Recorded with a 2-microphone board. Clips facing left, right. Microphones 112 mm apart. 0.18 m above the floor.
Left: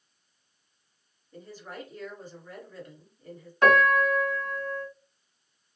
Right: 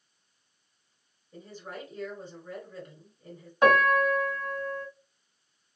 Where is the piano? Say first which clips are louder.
Even; 15° right (ahead or behind), 1.5 m.